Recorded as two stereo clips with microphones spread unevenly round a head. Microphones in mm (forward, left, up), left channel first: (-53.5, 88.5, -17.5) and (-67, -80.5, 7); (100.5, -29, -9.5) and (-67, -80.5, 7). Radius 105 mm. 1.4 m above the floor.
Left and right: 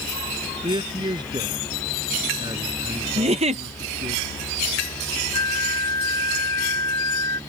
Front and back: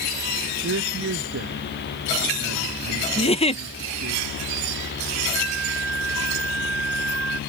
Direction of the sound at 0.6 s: 160° right.